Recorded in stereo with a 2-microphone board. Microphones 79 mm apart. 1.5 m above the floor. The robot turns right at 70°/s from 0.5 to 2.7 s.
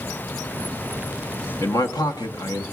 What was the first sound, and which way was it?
A man speaking, 50° left.